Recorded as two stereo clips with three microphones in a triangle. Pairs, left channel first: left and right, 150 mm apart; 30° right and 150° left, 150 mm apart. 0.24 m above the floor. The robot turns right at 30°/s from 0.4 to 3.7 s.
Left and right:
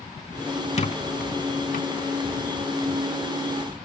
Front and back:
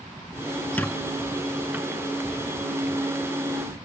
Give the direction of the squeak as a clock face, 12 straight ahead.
11 o'clock.